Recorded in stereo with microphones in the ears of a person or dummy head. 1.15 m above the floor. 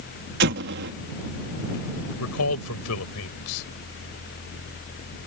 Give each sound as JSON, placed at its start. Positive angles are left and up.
{"t": 0.4, "sound": "an explosion", "side_deg": -55}
{"t": 2.2, "sound": "a man speaking", "side_deg": 90}